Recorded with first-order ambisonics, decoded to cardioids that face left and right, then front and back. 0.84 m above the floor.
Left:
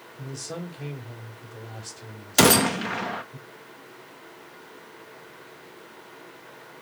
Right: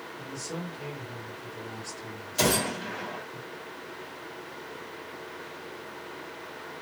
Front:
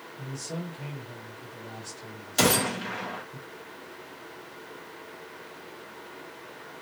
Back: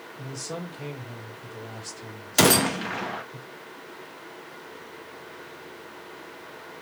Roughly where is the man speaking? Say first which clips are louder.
Left 3 dB, back 2 dB; behind left.